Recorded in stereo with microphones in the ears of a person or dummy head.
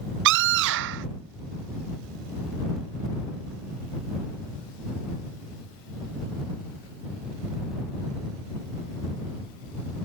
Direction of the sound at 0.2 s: 65° right (ahead or behind).